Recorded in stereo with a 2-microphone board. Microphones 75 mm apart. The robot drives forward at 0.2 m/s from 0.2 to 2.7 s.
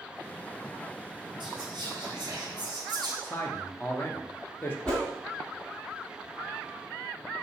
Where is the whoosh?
15° left (ahead or behind), 1.5 m.